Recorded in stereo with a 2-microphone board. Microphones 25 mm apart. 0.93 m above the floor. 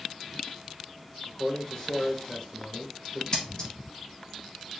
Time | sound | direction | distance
1.3 | a man speaking | 25° left (ahead or behind) | 0.9 m
3.3 | scissors | 30° left (ahead or behind) | 1.0 m